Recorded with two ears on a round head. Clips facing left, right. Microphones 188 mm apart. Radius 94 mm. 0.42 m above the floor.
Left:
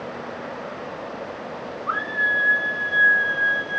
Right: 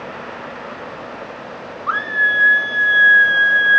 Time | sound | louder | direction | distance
1.9 | a scream | right 2 dB | 70° right (ahead or behind) | 4.5 m